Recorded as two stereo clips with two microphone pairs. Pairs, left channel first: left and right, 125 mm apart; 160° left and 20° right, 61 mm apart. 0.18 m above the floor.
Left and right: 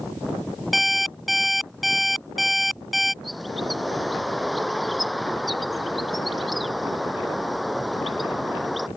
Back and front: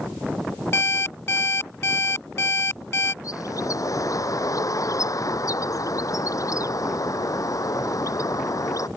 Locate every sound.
0.7 s an alarm clock: 175° right
3.2 s a bird: straight behind